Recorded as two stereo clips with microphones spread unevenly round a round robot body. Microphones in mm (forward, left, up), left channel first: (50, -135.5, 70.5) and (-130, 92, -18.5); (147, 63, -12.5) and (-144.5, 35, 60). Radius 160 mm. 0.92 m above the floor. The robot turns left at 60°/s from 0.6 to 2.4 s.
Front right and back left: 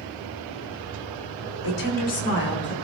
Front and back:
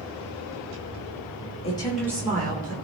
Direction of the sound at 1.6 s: 60° right.